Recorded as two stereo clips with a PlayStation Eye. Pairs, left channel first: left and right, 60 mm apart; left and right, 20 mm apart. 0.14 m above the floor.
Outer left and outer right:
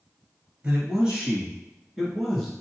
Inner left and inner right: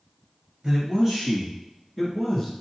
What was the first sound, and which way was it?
A man speaking, 20° right (ahead or behind).